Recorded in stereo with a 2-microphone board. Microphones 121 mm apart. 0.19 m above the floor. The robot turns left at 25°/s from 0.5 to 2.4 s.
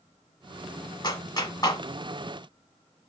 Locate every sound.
1.0 s a clap: 35° left (ahead or behind), 0.9 m; by 1.8 s 30° left (ahead or behind), 0.9 m